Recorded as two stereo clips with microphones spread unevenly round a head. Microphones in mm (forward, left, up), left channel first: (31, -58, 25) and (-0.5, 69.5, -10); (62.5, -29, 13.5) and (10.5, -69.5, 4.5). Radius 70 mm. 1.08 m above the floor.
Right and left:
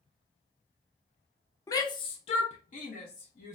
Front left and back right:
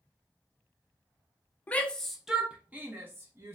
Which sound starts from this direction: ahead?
A shout, at 1.7 s.